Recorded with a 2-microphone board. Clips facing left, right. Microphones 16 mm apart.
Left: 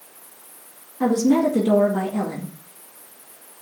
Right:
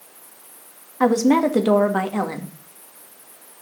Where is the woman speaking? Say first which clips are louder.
Right 2 dB; 80° right, 2 m.